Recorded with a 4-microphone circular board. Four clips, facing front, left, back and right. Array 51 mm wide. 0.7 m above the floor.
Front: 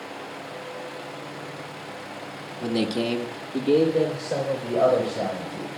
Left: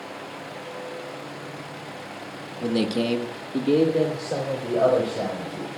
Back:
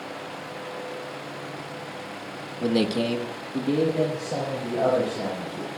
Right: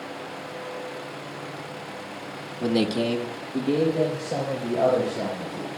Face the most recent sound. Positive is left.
turn(degrees=60)